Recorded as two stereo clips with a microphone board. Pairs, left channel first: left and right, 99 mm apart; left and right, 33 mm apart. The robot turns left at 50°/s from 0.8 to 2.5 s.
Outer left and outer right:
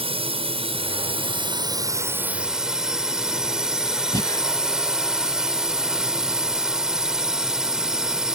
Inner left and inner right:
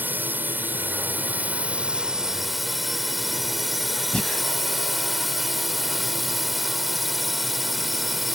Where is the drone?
90° right; by 8.3 s 175° right.